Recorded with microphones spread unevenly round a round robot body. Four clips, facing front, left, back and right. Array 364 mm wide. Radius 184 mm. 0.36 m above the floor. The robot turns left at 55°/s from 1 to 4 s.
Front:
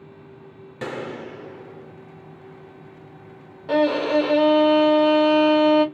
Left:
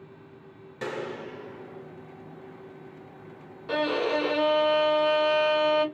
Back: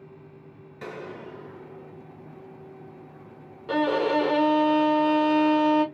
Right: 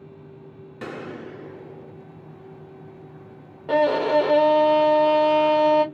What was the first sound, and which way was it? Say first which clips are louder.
A gunshot: left 1 dB, front 7 dB; 10° right.